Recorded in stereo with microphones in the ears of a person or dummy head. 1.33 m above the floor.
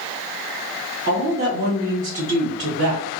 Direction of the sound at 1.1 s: 40° right (ahead or behind).